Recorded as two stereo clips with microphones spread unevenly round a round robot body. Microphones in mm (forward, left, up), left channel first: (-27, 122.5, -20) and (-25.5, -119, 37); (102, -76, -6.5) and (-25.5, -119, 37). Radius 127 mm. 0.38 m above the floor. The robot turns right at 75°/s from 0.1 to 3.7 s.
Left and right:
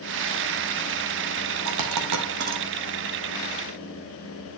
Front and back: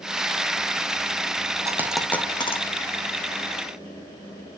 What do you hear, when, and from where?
1.6 s a dropped coin: 100° right, 2.5 m; by 2.6 s 25° right, 2.5 m